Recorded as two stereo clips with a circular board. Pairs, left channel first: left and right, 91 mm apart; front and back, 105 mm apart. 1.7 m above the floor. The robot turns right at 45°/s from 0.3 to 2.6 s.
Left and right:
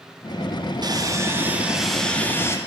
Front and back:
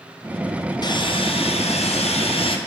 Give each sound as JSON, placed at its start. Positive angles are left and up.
{"t": 0.8, "sound": "sawing", "azimuth_deg": -45, "distance_m": 0.6}